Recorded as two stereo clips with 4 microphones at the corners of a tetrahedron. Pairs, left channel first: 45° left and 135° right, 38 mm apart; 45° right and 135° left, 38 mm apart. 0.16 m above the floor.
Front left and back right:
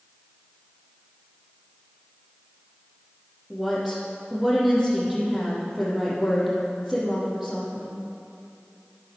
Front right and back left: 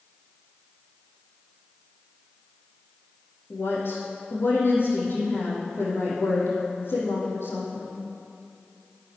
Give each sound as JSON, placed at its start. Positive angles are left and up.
{"t": 3.5, "sound": "a woman speaking", "azimuth_deg": -50, "distance_m": 5.0}